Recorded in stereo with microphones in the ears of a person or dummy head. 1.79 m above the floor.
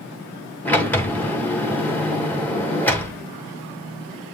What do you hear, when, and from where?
0.7 s a sliding door: 10° left (ahead or behind), 1.4 m